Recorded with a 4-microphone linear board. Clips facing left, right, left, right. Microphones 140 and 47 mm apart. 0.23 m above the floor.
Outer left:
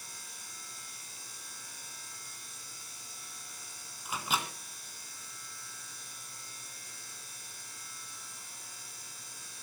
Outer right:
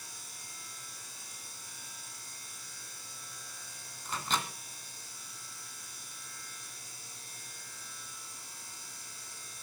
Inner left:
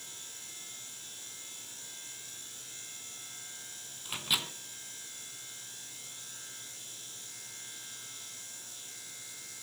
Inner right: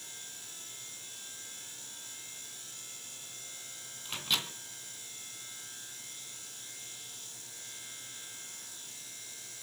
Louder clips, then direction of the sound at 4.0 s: Even, inner left 1 dB; 10° left (ahead or behind).